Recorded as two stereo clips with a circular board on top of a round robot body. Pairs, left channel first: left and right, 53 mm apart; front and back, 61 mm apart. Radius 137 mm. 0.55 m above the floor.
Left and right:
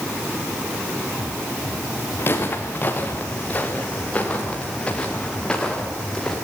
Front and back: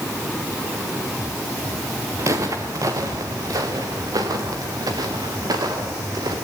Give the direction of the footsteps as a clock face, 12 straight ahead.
7 o'clock.